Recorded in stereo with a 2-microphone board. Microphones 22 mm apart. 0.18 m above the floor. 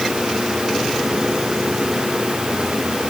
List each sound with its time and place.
Only background noise.